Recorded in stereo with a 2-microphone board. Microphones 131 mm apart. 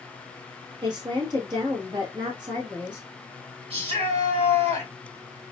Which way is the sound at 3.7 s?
45° right (ahead or behind).